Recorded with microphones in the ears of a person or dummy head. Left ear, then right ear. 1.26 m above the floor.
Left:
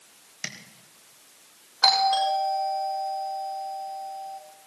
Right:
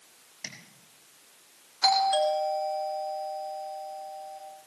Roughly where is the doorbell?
Left.